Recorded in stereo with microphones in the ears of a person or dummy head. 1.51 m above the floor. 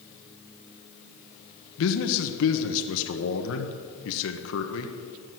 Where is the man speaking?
75° left (ahead or behind), 1.1 m.